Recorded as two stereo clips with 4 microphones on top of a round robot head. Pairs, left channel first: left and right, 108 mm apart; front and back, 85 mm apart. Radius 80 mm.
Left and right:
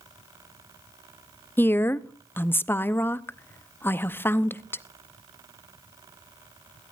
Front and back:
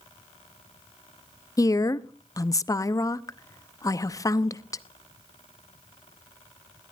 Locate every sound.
1.6 s a woman speaking: 25° left, 0.7 m